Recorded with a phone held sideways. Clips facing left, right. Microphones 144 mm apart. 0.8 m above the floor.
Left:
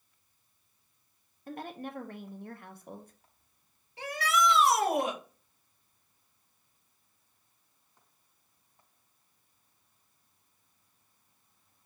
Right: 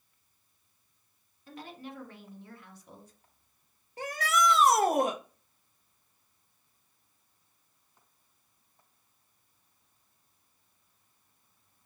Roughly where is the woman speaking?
Left.